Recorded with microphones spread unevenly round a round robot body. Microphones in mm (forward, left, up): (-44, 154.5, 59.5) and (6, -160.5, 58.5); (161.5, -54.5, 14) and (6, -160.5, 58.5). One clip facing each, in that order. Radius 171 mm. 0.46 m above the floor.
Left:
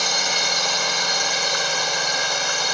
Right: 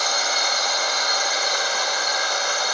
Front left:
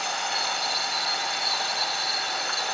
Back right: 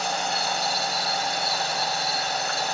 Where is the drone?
150° left.